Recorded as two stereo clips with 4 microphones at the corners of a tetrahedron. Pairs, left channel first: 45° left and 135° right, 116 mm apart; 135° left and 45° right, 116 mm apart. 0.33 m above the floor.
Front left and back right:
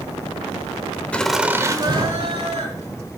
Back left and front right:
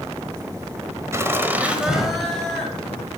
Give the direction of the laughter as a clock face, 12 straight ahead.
1 o'clock.